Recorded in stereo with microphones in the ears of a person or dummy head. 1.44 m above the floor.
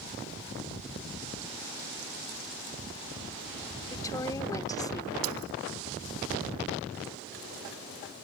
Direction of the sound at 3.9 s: 20° left (ahead or behind).